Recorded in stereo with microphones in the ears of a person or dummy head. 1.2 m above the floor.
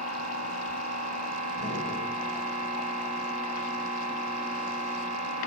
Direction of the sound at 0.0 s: 35° right (ahead or behind).